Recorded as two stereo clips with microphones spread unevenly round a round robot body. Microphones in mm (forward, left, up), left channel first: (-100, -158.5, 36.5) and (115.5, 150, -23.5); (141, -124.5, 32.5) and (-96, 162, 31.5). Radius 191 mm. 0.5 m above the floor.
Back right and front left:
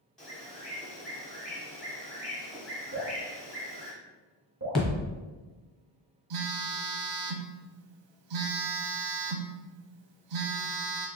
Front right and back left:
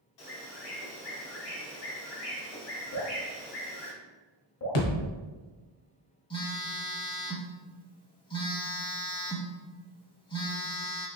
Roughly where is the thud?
Ahead right.